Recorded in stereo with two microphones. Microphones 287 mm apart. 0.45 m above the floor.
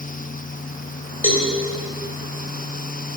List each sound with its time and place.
1.2 s a cowbell: 50° left (ahead or behind), 2 m